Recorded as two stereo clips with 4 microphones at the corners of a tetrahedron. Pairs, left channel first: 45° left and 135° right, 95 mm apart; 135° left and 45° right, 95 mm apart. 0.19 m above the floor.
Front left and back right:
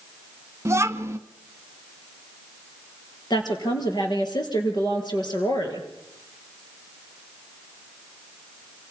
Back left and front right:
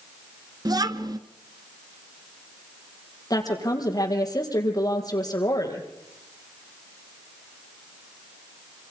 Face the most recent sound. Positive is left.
turn(degrees=85)